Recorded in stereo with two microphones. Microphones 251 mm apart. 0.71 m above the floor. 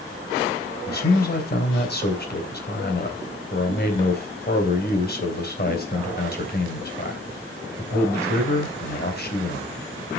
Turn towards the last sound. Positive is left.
turn(degrees=40)  # may be behind; listen again after turning